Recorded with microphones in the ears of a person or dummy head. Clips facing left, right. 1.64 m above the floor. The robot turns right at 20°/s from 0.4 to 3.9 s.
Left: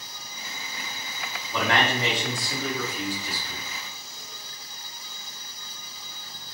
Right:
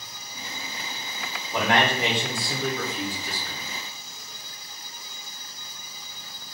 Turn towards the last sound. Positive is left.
turn(degrees=-125)